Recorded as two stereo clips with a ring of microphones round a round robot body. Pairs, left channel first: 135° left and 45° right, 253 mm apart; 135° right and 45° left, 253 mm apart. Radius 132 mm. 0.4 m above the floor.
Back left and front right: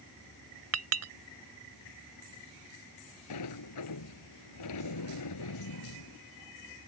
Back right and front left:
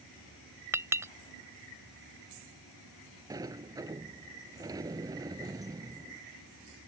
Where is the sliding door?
120° left.